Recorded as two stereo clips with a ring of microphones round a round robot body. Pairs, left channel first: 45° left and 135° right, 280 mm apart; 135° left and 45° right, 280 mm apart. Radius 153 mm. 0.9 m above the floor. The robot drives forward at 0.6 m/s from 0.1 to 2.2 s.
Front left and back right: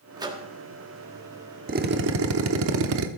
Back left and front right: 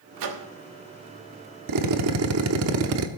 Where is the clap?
No clap in this recording.